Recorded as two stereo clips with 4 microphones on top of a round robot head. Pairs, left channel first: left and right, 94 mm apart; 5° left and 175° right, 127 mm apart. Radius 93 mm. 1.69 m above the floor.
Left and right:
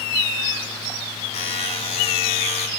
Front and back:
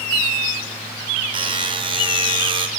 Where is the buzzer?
130° left, 4.5 m.